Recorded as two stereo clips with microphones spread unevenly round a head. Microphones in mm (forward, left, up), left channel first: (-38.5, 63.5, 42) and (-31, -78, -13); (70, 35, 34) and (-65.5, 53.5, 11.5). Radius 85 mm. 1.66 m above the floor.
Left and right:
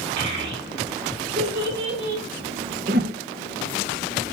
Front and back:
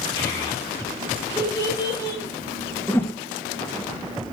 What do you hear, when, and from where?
0.2 s a child speaking: 75° right, 5.5 m; by 2.2 s 80° right, 7 m
2.9 s a whoosh: 60° right, 0.9 m